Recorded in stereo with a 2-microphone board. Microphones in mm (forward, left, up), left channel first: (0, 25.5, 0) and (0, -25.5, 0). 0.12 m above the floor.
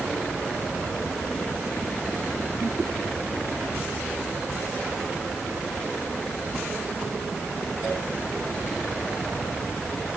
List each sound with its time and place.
Only background noise.